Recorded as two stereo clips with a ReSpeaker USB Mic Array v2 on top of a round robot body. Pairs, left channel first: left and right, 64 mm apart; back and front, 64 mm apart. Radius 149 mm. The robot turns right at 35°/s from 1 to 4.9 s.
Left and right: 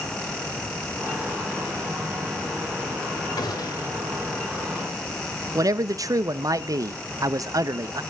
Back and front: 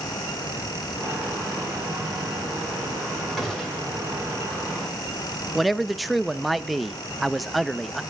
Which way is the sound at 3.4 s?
90° left.